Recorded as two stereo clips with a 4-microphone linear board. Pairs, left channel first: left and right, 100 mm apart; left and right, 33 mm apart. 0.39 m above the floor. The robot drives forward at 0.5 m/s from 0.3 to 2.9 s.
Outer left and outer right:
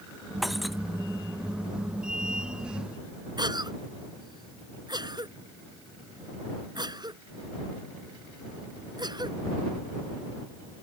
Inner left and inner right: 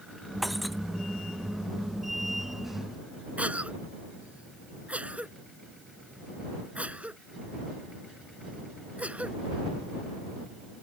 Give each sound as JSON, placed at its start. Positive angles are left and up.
{"t": 0.4, "sound": "breaking glass", "side_deg": 0}
{"t": 3.4, "sound": "a cough", "side_deg": -45}